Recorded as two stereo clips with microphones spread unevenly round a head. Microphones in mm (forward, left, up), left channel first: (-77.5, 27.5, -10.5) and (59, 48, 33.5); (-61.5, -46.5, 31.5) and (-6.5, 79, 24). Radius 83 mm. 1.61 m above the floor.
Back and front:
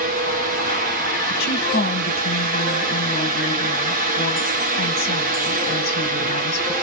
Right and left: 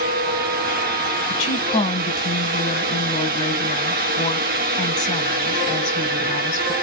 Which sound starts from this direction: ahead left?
A fan, at 0.0 s.